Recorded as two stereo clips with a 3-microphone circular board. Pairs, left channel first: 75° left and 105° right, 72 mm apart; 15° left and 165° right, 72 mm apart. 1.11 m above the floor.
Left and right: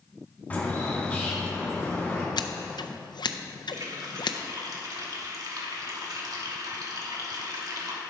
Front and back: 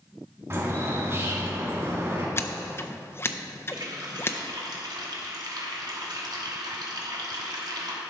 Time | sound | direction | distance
0.5 | a bird | 145° left | 2 m
2.4 | scissors | 75° left | 0.5 m
3.7 | a running tap | 140° right | 1.5 m